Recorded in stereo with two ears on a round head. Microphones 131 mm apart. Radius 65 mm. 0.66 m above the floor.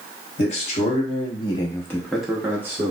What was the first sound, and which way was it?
A man speaking, 50° left (ahead or behind).